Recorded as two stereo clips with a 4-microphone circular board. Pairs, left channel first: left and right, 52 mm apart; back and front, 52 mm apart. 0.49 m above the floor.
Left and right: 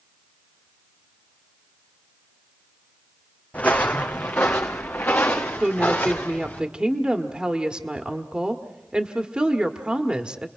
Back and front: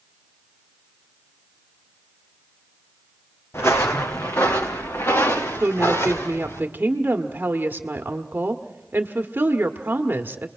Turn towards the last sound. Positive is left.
turn(degrees=-25)